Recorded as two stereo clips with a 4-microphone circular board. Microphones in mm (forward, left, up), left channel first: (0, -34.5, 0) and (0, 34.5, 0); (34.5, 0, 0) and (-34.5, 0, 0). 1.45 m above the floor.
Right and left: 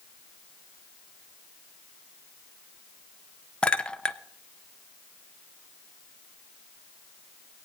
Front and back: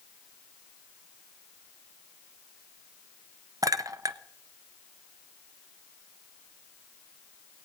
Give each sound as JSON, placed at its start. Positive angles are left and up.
{"t": 3.6, "sound": "a clink", "azimuth_deg": -160, "distance_m": 0.5}